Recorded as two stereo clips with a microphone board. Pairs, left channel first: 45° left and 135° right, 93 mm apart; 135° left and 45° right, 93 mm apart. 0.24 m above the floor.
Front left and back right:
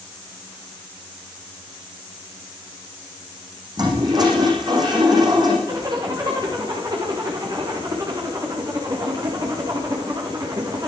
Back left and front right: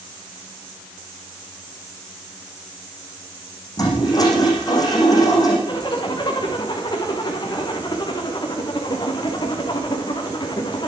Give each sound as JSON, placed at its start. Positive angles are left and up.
{"t": 3.8, "sound": "a toilet flushing", "azimuth_deg": 180, "distance_m": 9.0}
{"t": 5.7, "sound": "a zipper", "azimuth_deg": 175, "distance_m": 7.0}